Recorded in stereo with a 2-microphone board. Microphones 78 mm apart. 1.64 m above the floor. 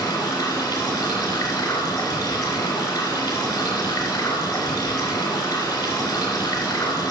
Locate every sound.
0.0 s running water: 65° left (ahead or behind), 3 m